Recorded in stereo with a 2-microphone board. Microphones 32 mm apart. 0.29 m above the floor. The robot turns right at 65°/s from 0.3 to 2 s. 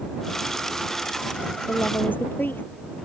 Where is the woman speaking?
70° left (ahead or behind); by 2.6 s 80° left.